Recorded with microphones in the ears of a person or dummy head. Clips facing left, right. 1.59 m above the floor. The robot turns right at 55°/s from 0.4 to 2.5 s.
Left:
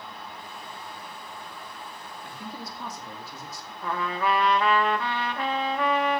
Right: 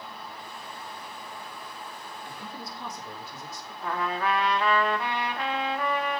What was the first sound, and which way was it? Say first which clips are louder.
A man speaking: left 3 dB; 45° left (ahead or behind).